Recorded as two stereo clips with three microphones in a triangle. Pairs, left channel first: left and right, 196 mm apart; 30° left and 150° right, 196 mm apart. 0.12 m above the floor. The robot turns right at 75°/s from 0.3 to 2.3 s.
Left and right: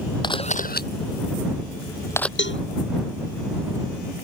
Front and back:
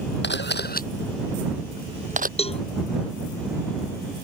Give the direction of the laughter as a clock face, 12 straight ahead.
No laughter in this recording.